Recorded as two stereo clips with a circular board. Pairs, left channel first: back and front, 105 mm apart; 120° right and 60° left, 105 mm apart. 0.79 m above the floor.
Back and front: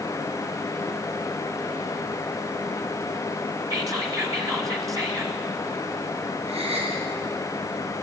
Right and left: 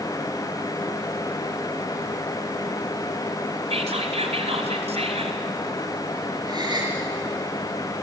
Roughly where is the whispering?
Ahead left.